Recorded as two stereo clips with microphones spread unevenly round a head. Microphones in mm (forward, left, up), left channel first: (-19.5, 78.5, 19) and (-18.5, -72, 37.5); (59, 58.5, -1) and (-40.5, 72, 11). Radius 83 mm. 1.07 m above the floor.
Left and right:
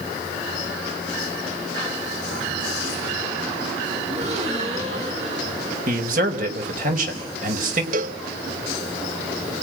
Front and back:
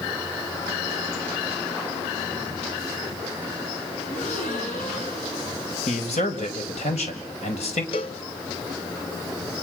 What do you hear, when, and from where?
4.1 s a gasp: 40° right, 7.5 m
5.9 s a man speaking: 50° right, 5 m
7.9 s a cowbell: 50° right, 1.1 m